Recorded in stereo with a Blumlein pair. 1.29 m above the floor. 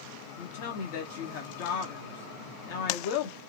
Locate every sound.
0.4 s a woman speaking: 50° left, 0.7 m